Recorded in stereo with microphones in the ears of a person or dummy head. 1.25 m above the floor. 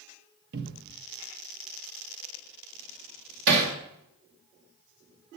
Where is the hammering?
65° right (ahead or behind), 2.5 m.